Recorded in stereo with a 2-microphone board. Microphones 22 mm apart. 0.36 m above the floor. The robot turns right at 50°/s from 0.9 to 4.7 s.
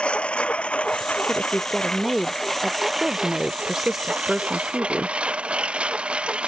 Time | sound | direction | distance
0.0 | a lawn mower | 65° left (ahead or behind) | ?
1.3 | a woman speaking | 5° left (ahead or behind) | ?